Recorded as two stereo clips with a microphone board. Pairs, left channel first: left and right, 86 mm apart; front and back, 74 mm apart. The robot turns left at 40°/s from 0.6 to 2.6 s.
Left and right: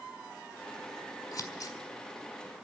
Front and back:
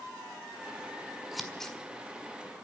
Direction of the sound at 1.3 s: 95° left.